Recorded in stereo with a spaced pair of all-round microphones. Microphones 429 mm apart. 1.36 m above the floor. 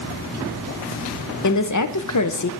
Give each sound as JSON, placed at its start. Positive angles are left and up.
{"t": 1.4, "sound": "a woman speaking", "side_deg": 45, "distance_m": 0.7}